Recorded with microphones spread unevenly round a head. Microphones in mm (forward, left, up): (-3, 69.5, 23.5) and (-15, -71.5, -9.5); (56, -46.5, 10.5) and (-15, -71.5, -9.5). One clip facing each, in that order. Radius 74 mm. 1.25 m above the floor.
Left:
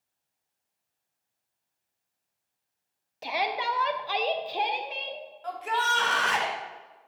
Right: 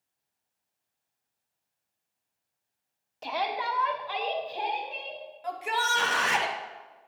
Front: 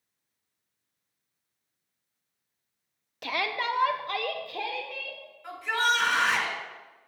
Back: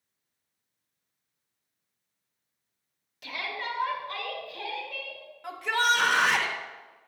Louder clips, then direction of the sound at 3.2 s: Left 1 dB, front 5 dB; 5° right.